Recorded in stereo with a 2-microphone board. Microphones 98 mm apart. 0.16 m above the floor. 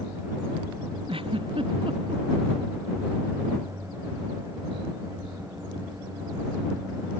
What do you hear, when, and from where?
1.1 s a giggle: 70° right (ahead or behind)